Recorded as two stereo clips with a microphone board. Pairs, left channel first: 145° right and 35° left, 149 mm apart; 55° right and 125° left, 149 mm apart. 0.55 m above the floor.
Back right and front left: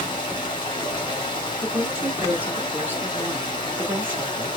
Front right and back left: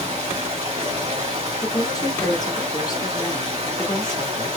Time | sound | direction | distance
0.0 | running water | 165° left | 1.5 m
1.6 | a woman speaking | 30° right | 1.1 m